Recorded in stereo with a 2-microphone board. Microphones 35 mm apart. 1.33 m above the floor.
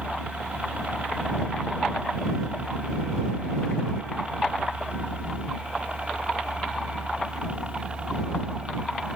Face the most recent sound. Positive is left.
turn(degrees=-30)  # may be behind; listen again after turning